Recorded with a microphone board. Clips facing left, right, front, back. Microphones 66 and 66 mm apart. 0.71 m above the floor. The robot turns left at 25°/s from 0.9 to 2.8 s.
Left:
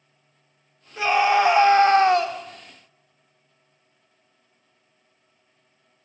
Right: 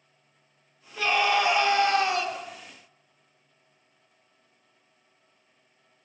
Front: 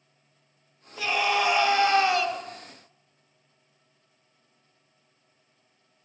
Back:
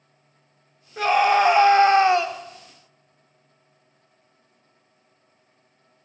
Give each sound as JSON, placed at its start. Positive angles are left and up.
{"t": 1.0, "sound": "a scream", "azimuth_deg": 155, "distance_m": 2.5}